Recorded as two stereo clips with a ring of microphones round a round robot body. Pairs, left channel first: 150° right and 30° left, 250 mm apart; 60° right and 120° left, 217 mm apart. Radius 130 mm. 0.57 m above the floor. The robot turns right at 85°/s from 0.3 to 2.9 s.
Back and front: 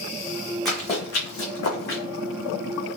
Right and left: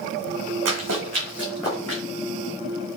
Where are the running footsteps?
120° left, 2 m; by 2.0 s 85° right, 2 m.